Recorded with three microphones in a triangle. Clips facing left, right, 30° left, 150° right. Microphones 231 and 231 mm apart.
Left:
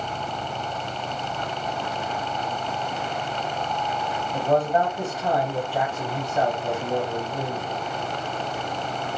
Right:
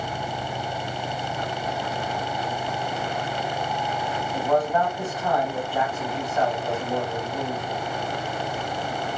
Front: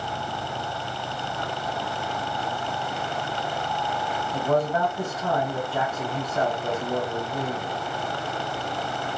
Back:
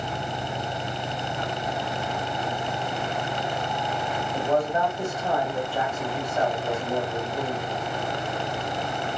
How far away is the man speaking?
About 1.0 m.